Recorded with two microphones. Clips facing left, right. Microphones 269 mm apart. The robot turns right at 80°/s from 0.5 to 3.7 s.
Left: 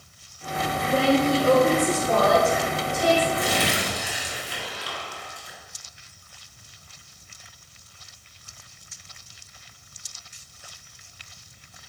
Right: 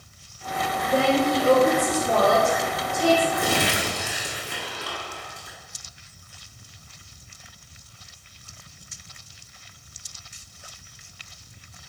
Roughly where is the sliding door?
No sliding door in this recording.